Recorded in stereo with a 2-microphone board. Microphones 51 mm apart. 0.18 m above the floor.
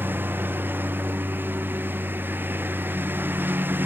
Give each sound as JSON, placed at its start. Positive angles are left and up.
{"t": 0.0, "sound": "a lawn mower", "side_deg": -40}